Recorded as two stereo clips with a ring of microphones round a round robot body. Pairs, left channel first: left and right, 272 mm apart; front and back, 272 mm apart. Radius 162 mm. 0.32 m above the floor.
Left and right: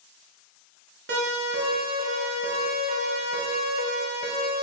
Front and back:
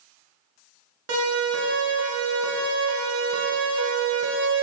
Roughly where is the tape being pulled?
I don't hear tape being pulled.